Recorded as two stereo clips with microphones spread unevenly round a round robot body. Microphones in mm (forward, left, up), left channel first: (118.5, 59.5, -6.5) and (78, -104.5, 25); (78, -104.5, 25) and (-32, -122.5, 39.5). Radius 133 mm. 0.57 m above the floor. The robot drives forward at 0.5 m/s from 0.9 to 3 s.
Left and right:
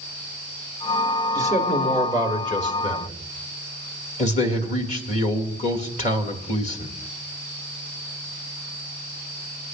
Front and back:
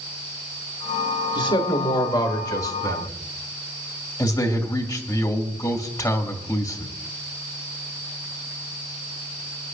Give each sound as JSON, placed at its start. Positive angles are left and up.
{"t": 1.4, "sound": "a man speaking", "azimuth_deg": 45, "distance_m": 2.5}